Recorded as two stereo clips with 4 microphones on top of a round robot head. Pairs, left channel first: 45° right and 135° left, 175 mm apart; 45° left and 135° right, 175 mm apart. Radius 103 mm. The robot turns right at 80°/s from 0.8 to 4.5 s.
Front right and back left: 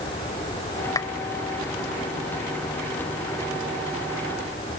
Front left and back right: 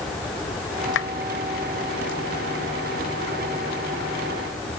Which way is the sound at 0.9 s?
25° left.